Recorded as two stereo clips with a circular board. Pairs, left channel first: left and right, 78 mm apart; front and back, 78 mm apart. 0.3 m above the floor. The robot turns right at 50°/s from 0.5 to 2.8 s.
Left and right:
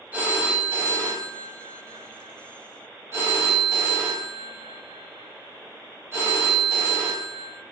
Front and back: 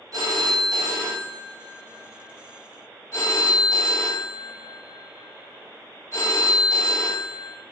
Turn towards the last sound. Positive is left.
turn(degrees=-40)